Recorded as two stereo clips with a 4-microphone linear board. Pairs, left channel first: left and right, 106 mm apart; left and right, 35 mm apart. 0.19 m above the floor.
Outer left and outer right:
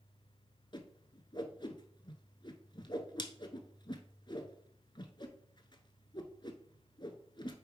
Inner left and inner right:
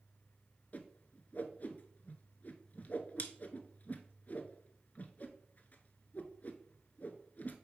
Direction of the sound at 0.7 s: 45° left (ahead or behind).